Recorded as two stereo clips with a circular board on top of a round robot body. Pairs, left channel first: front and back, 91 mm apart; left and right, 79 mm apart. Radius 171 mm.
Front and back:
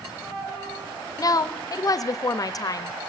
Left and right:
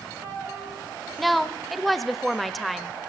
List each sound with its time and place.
1.2 s a woman speaking: straight ahead, 0.8 m